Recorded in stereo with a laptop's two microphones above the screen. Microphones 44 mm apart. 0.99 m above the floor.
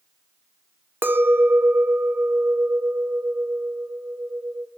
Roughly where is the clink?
Right.